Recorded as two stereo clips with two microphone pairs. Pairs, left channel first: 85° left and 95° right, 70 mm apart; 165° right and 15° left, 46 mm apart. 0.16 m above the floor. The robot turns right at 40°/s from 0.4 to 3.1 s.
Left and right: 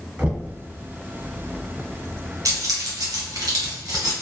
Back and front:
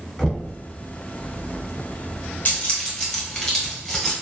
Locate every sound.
0.2 s knocking: 115° right, 0.9 m; by 0.5 s 110° right, 0.9 m
2.5 s keys jangling: 120° right, 1.7 m; by 4.1 s 95° right, 1.7 m